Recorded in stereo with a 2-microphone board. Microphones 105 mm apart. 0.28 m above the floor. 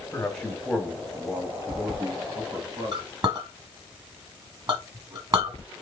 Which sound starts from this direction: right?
A clink, at 2.9 s.